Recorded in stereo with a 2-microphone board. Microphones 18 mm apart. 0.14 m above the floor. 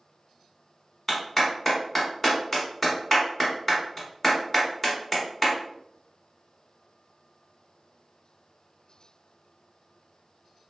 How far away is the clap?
About 1.0 m.